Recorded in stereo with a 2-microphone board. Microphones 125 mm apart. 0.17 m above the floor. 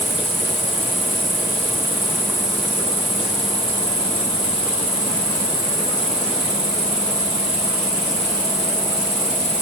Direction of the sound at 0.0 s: 45° left (ahead or behind).